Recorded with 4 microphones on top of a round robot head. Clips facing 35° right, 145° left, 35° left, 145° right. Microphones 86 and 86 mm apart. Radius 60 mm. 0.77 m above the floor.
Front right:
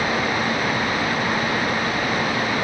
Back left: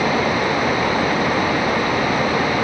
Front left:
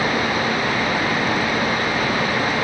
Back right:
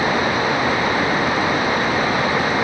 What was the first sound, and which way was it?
Only background noise.